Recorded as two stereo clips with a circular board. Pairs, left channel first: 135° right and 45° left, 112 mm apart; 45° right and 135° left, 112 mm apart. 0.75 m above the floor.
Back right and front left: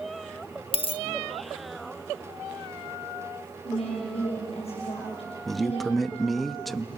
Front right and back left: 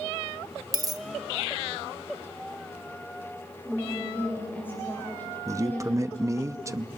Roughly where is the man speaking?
Behind left.